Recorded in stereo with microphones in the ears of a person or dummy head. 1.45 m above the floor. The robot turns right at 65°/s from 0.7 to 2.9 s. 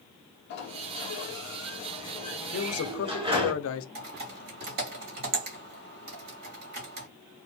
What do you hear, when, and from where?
0.5 s a sliding door: 65° left, 1.9 m; by 3.5 s 150° right, 1.9 m
2.5 s a man speaking: 70° left (ahead or behind), 0.7 m
4.0 s typing on a keyboard: 50° right (ahead or behind), 2 m